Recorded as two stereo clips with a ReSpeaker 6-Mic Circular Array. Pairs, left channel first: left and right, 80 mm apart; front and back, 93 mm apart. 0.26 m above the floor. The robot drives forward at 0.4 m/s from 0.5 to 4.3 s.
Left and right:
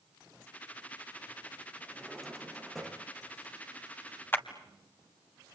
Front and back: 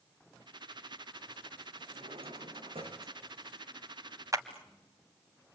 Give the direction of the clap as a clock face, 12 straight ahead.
7 o'clock.